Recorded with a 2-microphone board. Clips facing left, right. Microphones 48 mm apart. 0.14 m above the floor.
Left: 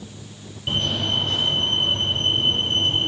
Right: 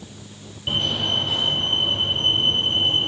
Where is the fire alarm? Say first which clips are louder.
Even; 5° right (ahead or behind), 5.5 m.